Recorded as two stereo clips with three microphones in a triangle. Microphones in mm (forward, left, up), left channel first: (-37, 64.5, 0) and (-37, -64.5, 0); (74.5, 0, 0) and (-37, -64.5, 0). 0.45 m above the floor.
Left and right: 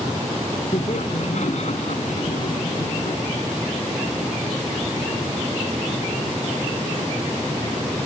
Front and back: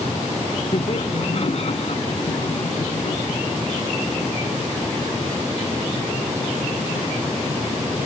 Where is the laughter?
65° left.